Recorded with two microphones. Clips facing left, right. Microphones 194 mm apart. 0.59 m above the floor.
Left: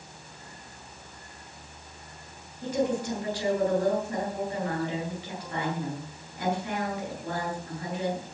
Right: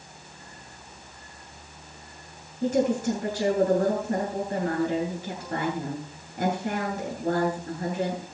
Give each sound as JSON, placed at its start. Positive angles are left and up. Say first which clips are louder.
{"t": 2.6, "sound": "a woman speaking", "louder": "right 4 dB", "side_deg": -45, "distance_m": 10.0}